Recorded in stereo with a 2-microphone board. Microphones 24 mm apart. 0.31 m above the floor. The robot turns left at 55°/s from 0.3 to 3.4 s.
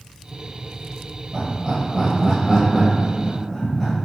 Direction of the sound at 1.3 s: 30° right (ahead or behind).